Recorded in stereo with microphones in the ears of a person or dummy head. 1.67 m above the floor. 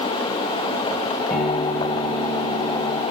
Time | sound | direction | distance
1.3 | a guitar | 5° left (ahead or behind) | 8.5 m